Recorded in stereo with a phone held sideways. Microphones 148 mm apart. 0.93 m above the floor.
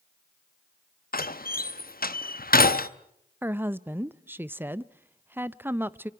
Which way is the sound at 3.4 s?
15° right (ahead or behind).